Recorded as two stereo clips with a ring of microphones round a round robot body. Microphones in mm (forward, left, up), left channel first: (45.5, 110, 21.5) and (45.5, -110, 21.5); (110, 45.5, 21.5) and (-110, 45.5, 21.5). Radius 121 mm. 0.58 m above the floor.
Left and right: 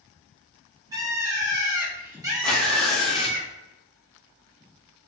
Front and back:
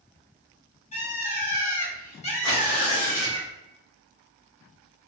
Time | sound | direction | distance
0.9 | a bird | 30° right | 1.2 m
2.4 | tearing paper | 5° left | 1.3 m